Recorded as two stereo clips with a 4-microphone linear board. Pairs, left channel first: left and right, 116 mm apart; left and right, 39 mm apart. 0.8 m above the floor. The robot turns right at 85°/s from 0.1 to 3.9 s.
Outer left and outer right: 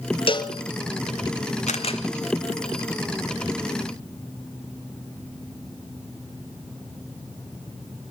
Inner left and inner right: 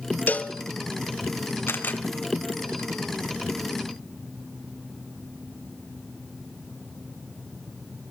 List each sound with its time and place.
0.3 s a cowbell: 50° left (ahead or behind), 1.1 m; by 0.5 s 25° left (ahead or behind), 1.1 m
1.7 s a camera shutter: 75° left (ahead or behind), 1.9 m; by 2.0 s 45° left (ahead or behind), 1.9 m